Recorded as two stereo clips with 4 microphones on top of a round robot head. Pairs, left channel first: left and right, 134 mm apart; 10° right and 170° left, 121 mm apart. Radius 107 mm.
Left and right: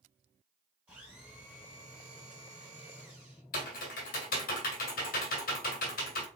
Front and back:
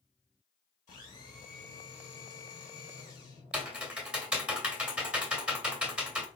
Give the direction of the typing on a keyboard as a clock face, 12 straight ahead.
9 o'clock.